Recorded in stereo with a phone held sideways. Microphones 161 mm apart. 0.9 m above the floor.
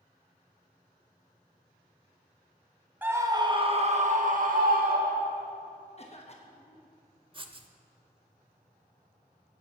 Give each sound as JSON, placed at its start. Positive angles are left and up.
{"t": 3.0, "sound": "a scream", "side_deg": -10, "distance_m": 1.1}
{"t": 6.0, "sound": "a cough", "side_deg": 40, "distance_m": 1.0}
{"t": 7.3, "sound": "writing", "side_deg": -30, "distance_m": 0.7}